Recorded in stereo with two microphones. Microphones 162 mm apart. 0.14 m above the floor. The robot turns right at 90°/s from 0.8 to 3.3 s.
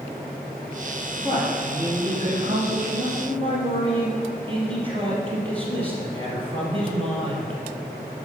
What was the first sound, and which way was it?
A man speaking, 135° left.